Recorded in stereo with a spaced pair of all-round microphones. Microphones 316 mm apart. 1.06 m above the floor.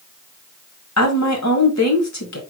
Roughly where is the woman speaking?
Left.